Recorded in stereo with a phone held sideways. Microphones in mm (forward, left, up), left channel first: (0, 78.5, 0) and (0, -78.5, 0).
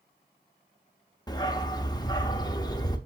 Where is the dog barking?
25° left (ahead or behind), 0.8 m.